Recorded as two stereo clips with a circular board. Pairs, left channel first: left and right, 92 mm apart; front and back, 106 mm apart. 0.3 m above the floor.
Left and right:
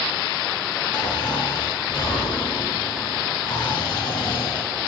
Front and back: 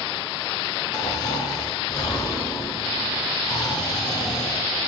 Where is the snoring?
50° left, 3.5 m.